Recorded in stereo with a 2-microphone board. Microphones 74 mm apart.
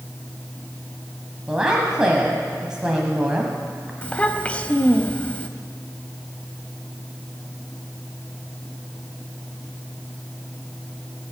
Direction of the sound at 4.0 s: 20° left (ahead or behind).